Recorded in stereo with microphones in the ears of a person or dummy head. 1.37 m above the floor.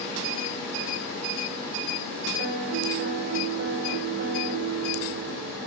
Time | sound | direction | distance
2.4 | a piano | 85° right | 4 m